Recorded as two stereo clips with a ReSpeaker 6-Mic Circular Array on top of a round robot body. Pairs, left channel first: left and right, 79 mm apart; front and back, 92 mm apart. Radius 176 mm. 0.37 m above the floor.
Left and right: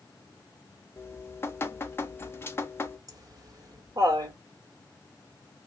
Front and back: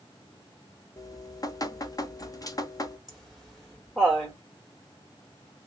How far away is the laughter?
About 1.9 m.